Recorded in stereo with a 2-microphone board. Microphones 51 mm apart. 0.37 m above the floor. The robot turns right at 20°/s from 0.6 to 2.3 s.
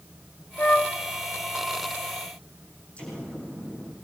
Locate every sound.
0.6 s a flute: 35° left (ahead or behind), 1.3 m
3.0 s an explosion: 25° left (ahead or behind), 8 m